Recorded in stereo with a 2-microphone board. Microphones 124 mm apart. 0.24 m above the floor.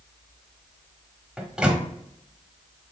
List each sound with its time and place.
1.4 s a microwave: 5° right (ahead or behind), 0.8 m